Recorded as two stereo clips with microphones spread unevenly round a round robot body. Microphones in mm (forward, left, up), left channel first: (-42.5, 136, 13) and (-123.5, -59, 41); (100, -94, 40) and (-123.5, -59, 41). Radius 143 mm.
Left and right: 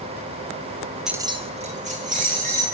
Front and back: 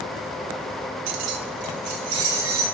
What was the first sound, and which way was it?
Keys jangling, 160° left.